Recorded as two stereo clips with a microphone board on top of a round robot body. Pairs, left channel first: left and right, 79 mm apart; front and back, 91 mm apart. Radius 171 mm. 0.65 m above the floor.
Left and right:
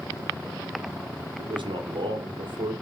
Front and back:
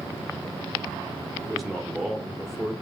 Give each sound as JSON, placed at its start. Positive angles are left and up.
{"t": 1.4, "sound": "a man speaking", "azimuth_deg": -90, "distance_m": 2.5}